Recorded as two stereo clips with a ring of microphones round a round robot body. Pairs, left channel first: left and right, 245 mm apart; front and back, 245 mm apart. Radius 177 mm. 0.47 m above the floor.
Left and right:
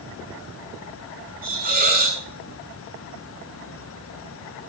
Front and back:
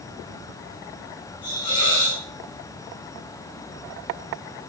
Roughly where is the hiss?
Ahead right.